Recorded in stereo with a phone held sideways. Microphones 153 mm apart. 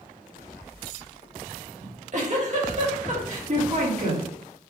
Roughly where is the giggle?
Right.